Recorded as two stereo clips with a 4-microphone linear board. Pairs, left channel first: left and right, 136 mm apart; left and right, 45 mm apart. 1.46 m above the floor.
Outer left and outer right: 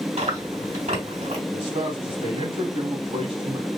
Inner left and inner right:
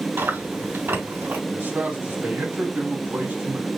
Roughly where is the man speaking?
Right.